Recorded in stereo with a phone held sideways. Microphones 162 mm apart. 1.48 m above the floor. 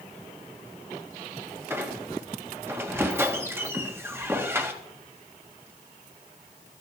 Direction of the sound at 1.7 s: 15° right (ahead or behind).